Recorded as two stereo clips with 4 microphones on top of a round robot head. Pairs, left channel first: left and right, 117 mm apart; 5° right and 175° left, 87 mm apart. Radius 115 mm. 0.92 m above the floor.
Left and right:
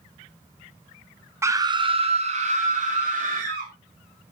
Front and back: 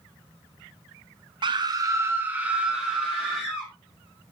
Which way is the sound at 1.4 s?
160° right.